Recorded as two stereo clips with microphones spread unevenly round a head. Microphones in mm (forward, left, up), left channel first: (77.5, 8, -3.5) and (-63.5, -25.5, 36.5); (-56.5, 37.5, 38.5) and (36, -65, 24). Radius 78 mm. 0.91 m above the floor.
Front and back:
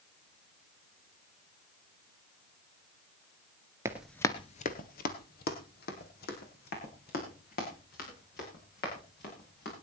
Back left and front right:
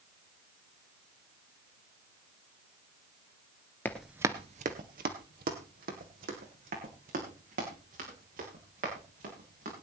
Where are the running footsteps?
175° right, 1.0 m; by 9.7 s 10° right, 8.5 m.